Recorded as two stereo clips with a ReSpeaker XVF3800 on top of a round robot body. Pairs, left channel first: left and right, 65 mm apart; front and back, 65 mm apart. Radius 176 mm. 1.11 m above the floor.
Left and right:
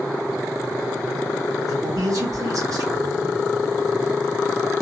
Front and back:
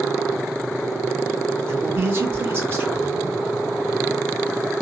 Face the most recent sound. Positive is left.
turn(degrees=-125)